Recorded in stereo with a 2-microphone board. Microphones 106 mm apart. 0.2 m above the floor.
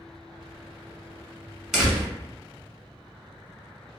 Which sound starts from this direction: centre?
A door slam, at 1.7 s.